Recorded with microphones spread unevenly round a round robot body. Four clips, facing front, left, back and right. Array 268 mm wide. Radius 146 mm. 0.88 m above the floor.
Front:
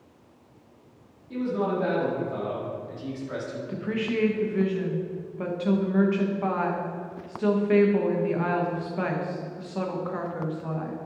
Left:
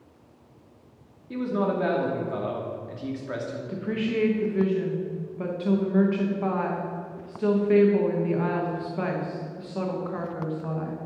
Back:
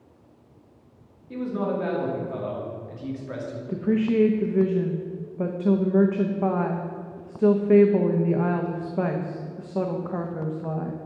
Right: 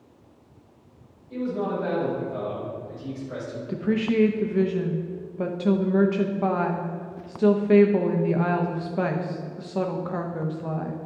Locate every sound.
1.3 s a man speaking: 85° left, 2.5 m
3.7 s a woman speaking: 150° right, 0.8 m